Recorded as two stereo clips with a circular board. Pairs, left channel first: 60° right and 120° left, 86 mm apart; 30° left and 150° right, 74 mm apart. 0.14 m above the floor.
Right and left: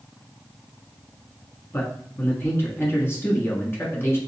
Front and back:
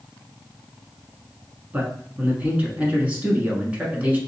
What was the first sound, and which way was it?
A man speaking, 95° right.